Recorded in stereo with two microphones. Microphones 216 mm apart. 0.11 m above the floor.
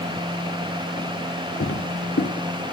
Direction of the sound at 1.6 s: 60° left (ahead or behind).